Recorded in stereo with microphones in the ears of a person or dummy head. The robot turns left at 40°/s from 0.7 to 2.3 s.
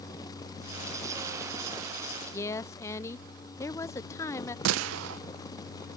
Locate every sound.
2.3 s a woman speaking: 20° left (ahead or behind)
4.7 s a gunshot: 80° right